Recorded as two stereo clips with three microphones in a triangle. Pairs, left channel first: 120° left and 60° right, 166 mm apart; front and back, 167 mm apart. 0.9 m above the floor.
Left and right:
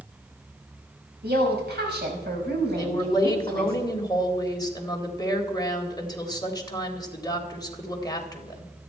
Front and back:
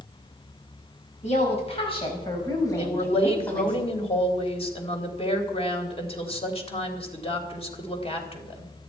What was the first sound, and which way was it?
A woman speaking, 45° right.